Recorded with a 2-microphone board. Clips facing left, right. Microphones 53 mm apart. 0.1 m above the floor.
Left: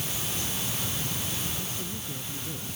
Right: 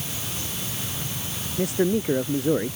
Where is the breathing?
I don't hear breathing.